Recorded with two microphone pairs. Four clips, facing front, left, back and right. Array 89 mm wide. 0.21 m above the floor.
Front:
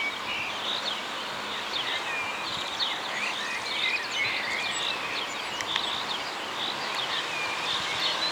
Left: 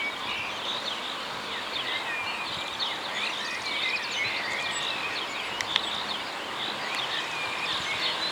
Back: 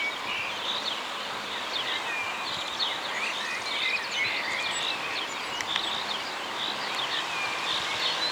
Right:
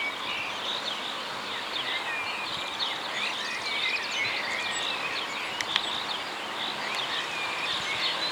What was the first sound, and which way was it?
Only background noise.